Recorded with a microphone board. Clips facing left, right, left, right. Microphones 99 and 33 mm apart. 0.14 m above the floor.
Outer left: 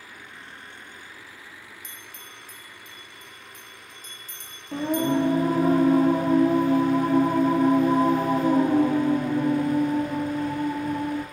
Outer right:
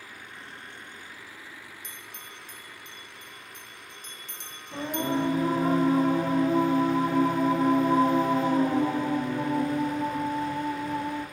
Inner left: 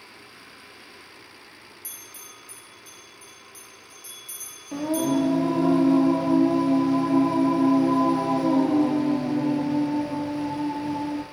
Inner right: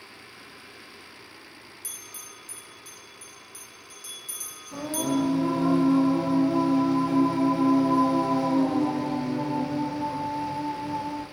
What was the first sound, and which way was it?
A bell, 60° right (ahead or behind).